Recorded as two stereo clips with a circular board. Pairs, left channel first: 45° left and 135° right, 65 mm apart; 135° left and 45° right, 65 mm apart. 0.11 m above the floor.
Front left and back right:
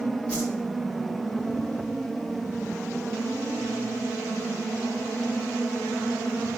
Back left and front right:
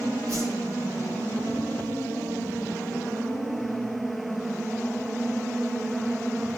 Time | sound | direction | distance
0.3 | a whoosh | 25° right | 6.5 m